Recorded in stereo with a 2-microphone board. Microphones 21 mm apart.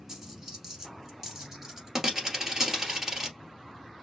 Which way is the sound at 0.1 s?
15° right (ahead or behind).